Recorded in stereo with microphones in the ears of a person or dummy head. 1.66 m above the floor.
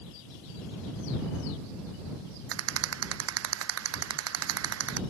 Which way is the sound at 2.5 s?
80° right.